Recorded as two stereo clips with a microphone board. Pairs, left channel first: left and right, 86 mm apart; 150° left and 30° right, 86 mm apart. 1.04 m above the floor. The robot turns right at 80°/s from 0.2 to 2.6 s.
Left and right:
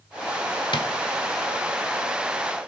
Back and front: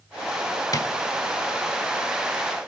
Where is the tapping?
105° left, 1.4 m; by 0.9 s 120° left, 1.4 m.